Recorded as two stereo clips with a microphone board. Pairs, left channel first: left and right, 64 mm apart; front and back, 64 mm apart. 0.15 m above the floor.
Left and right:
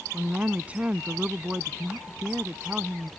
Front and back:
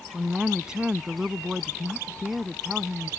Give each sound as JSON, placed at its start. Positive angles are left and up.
{"t": 0.1, "sound": "a woman speaking", "azimuth_deg": -115}